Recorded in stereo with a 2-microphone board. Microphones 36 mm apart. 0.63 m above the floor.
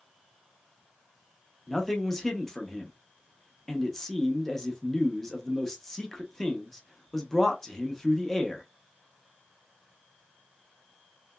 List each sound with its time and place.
1.7 s a man speaking: 10° left (ahead or behind), 0.7 m